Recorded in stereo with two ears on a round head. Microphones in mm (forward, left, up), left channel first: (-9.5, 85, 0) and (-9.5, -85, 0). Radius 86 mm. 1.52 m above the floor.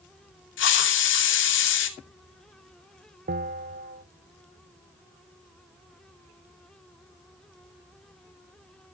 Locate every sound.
0.6 s a hiss: 75° left (ahead or behind), 2.5 m
3.3 s a bell: 45° right (ahead or behind), 0.8 m